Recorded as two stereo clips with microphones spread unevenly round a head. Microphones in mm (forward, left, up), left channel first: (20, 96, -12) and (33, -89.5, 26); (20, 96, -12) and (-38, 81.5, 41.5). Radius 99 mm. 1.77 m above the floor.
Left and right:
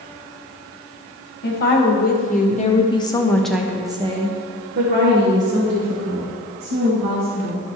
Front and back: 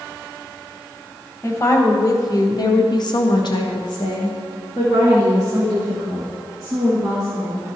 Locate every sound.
1.4 s a woman speaking: 60° left, 1.8 m; by 7.6 s 75° right, 3 m